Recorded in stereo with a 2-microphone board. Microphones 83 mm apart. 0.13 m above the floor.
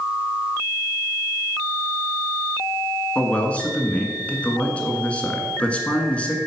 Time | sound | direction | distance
3.1 | a man speaking | 15° left (ahead or behind) | 1.5 m